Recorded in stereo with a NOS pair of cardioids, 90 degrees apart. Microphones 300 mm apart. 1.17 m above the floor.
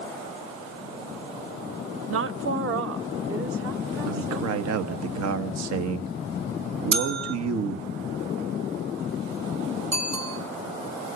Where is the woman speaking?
45° right, 0.9 m.